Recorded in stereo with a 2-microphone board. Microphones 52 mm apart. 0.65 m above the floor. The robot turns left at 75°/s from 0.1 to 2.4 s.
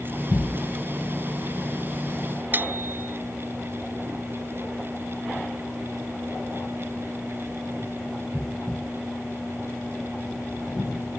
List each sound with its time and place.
2.5 s a bicycle bell: 40° right (ahead or behind)